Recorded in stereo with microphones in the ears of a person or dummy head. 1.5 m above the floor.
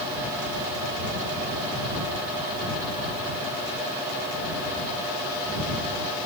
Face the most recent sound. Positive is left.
No sound to turn to.